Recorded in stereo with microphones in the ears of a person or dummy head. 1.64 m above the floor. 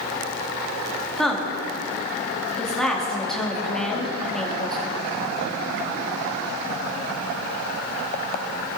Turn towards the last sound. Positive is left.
turn(degrees=0)  # may be behind; listen again after turning